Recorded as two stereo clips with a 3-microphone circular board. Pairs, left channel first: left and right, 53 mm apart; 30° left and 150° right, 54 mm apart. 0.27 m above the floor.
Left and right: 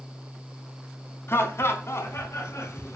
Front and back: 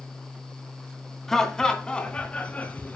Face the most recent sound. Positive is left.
turn(degrees=80)